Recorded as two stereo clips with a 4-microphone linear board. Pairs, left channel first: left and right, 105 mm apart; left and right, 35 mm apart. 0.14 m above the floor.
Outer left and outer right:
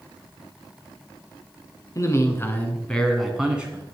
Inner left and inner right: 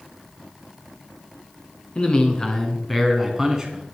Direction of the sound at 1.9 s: 35° left (ahead or behind).